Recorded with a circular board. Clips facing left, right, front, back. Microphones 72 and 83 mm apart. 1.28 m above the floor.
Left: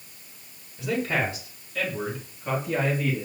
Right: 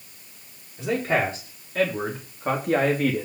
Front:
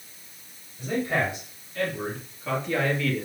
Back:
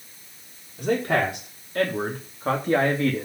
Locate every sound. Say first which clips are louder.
0.8 s a man speaking: right 3 dB, back 4 dB; 150° right, 4.5 m; by 3.3 s 120° right, 2.5 m